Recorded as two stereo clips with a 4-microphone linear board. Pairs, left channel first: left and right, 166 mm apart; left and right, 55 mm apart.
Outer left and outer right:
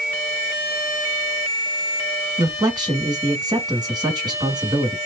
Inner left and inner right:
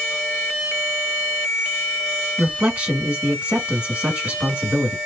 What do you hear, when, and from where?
2.4 s a man speaking: 25° right (ahead or behind), 1.6 m